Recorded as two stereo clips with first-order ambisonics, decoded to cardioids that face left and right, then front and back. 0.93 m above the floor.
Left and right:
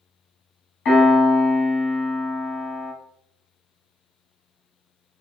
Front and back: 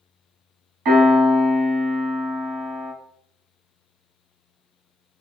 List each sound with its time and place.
0.8 s a piano: 145° left, 1.3 m